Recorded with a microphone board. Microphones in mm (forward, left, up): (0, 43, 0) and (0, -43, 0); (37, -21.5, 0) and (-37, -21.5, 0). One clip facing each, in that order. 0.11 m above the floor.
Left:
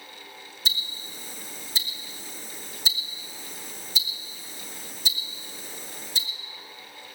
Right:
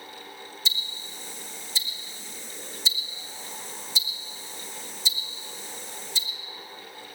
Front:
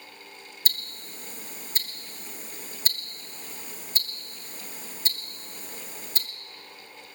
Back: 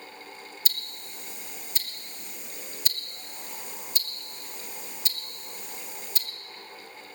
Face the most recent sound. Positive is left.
turn(degrees=50)